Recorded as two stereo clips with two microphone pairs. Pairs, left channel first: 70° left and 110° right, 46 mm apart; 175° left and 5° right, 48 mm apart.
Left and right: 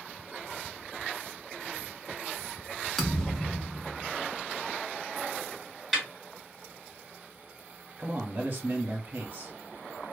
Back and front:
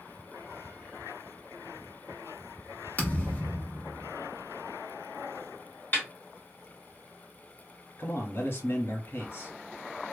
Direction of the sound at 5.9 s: 165° left.